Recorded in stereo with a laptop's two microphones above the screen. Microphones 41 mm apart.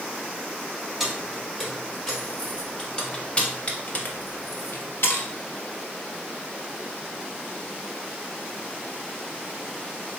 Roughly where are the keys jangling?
Centre.